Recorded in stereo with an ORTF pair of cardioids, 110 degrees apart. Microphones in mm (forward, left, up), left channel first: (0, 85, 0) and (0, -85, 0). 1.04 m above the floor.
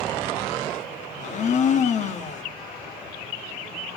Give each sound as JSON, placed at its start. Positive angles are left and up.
{"t": 1.2, "sound": "a blender", "azimuth_deg": 45, "distance_m": 1.3}